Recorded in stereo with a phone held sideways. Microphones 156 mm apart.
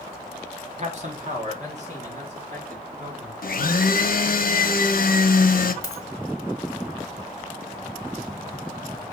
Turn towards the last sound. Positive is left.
turn(degrees=20)  # may be behind; listen again after turning